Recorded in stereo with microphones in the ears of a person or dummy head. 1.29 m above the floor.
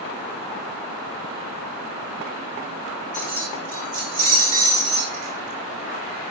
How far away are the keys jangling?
About 4.5 m.